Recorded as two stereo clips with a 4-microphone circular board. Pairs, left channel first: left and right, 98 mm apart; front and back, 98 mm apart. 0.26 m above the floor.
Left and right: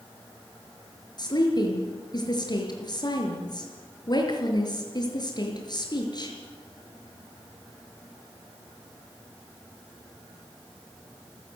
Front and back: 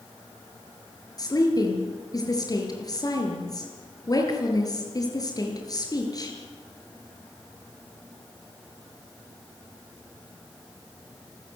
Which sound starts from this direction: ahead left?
A woman speaking, at 1.2 s.